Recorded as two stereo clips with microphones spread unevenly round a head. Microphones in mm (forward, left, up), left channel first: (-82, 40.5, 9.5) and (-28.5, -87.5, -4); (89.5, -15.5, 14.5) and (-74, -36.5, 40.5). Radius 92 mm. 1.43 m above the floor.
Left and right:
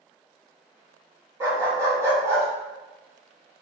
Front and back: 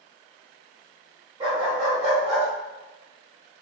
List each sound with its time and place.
1.4 s a dog barking: 135° right, 1.5 m